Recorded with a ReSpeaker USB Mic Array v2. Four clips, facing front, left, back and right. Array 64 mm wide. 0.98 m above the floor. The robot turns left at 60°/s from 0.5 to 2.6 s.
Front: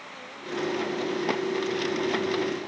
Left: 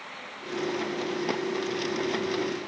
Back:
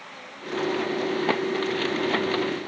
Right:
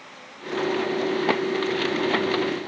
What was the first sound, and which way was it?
Only background noise.